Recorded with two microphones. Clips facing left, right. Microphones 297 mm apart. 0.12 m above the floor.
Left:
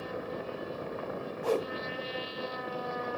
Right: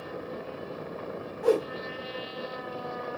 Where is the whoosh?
80° right, 1.0 m.